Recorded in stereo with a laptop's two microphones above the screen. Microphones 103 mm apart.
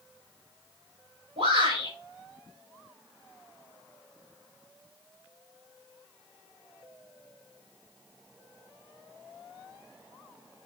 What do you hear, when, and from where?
1.4 s a shout: 70° right (ahead or behind), 6.5 m